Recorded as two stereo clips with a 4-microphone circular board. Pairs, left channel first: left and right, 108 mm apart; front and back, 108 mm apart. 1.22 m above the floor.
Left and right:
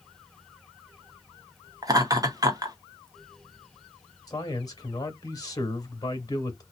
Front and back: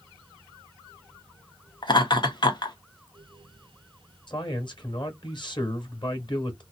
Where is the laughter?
40° right, 0.8 m.